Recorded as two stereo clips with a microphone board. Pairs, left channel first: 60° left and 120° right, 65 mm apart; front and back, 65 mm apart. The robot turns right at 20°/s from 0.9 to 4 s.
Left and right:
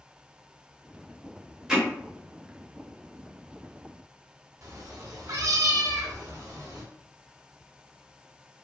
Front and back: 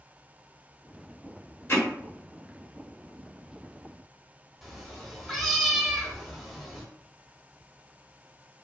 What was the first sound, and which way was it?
Hammering, 35° right.